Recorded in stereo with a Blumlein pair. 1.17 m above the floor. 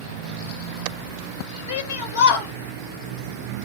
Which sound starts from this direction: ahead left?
A shout, at 1.7 s.